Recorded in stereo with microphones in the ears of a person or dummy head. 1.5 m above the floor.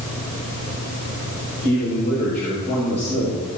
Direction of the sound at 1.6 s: 35° left (ahead or behind).